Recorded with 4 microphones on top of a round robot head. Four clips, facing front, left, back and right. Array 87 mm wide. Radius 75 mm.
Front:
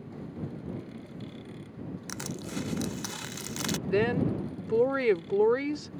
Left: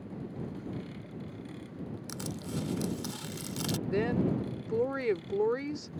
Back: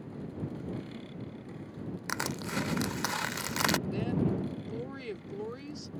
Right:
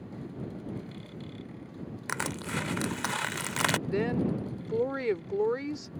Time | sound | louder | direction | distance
2.1 | crushing | right 7 dB, back 5 dB | 125° right | ?
3.9 | a woman speaking | even, front 5 dB | straight ahead | ?